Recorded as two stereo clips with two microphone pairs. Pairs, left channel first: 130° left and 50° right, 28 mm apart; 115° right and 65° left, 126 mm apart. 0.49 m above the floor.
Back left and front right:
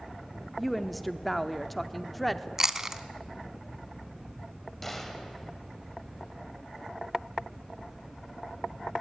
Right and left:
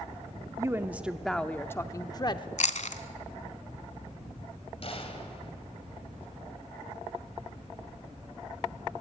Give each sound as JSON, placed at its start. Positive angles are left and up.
{"t": 0.6, "sound": "a woman speaking", "azimuth_deg": 40, "distance_m": 0.8}
{"t": 2.6, "sound": "chewing", "azimuth_deg": -125, "distance_m": 0.8}
{"t": 4.8, "sound": "a gunshot", "azimuth_deg": -150, "distance_m": 2.5}